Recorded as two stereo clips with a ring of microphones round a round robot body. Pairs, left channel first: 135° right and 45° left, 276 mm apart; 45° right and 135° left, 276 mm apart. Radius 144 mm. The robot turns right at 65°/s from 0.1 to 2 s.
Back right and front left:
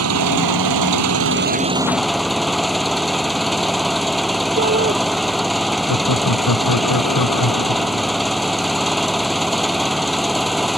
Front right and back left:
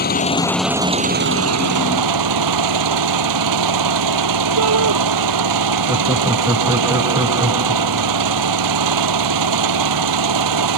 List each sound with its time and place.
0.0 s an engine running: 10° left; by 10.8 s 135° left
4.6 s a shout: 105° left
5.9 s laughter: 145° right